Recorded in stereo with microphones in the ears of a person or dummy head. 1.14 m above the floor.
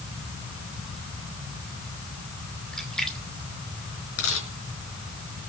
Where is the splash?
Centre (ahead or behind), 2.5 m.